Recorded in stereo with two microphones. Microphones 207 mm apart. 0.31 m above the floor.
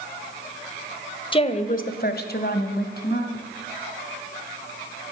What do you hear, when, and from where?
1.3 s a woman speaking: 25° left (ahead or behind), 1.3 m; by 3.5 s 45° left (ahead or behind), 3 m